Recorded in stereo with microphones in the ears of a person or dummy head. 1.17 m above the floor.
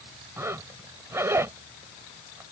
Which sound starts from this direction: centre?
A zipper, at 0.4 s.